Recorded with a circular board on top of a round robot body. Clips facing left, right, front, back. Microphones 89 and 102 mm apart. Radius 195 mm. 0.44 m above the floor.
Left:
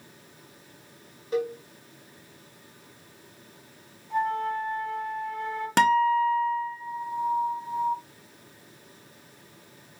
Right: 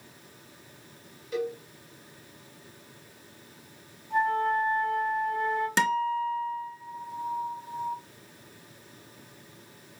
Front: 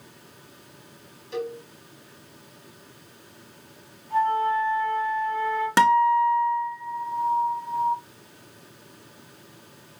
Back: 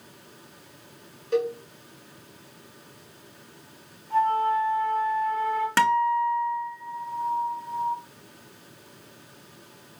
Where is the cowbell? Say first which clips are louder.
Left 3 dB, back 6 dB; 145° left, 1.9 m.